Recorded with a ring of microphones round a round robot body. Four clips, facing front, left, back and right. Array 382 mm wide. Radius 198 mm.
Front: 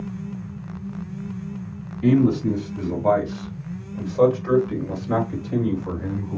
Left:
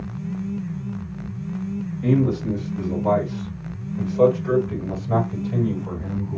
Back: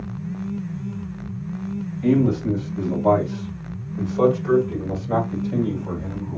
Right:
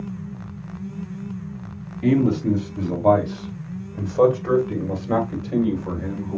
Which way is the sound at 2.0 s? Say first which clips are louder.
Right 2 dB, front 1 dB; 60° right.